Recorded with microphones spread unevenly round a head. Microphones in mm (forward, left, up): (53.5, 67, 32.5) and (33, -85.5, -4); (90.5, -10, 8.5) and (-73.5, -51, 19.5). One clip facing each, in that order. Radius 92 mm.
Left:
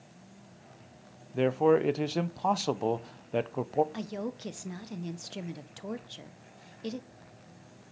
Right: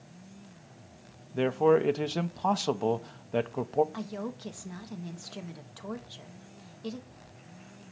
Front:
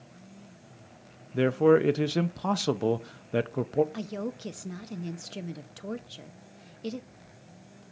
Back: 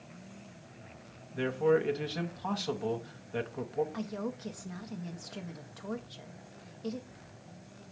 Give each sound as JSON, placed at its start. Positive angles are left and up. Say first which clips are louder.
{"t": 1.3, "sound": "a man speaking", "louder": "even, front 6 dB", "azimuth_deg": 10, "distance_m": 0.7}
{"t": 3.9, "sound": "a woman speaking", "louder": "left 1 dB, front 2 dB", "azimuth_deg": 55, "distance_m": 0.7}